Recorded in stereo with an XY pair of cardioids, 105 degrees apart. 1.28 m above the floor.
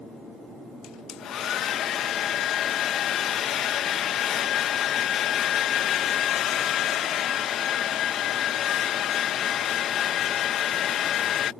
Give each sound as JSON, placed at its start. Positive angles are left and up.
{"t": 0.8, "sound": "a hair dryer", "azimuth_deg": 65}